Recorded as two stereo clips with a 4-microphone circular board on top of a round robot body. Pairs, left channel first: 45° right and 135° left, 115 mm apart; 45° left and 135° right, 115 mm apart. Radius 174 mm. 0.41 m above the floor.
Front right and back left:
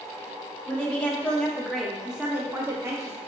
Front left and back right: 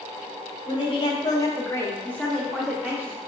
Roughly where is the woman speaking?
Ahead left.